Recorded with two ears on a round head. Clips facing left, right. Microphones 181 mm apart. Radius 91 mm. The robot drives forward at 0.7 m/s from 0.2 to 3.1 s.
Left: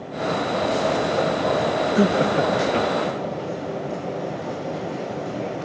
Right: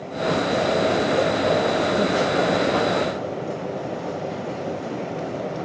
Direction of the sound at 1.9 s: 35° left (ahead or behind).